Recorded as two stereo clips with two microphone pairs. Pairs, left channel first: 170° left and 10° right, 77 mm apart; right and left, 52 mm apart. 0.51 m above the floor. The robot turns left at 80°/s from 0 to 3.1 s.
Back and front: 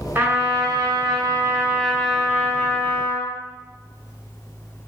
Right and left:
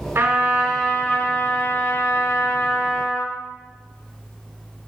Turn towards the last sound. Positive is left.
turn(degrees=170)